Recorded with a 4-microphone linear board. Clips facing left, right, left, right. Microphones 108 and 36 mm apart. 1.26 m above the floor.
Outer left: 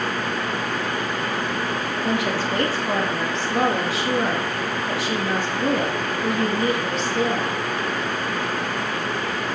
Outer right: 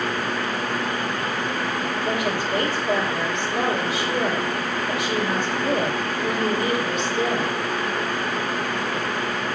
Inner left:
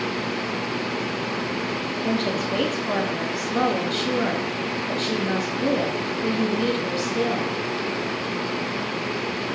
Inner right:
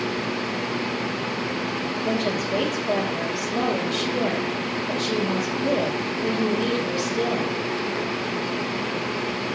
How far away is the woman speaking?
About 2.5 m.